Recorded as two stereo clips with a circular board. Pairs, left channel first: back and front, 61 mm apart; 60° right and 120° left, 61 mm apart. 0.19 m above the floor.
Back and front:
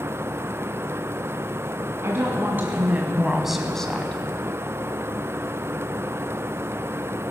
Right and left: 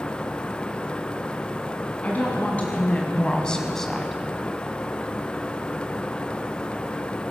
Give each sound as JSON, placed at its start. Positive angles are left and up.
{"t": 2.0, "sound": "a woman speaking", "azimuth_deg": -10, "distance_m": 1.7}